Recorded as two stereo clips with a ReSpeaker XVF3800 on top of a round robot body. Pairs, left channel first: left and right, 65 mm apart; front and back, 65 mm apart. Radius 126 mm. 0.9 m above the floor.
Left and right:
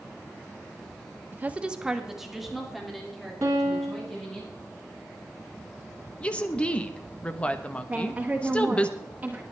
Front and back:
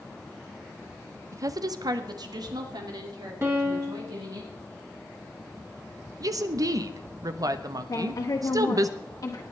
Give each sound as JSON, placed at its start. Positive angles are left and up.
{"t": 1.3, "sound": "a woman speaking", "azimuth_deg": -145, "distance_m": 0.7}
{"t": 3.4, "sound": "a piano", "azimuth_deg": -135, "distance_m": 0.7}
{"t": 6.2, "sound": "a woman speaking", "azimuth_deg": 160, "distance_m": 1.0}
{"t": 7.9, "sound": "a woman speaking", "azimuth_deg": -20, "distance_m": 1.9}